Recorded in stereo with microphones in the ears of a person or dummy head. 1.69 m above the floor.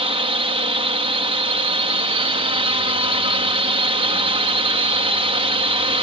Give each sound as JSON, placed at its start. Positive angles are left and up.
{"t": 0.0, "sound": "a drone", "side_deg": -30}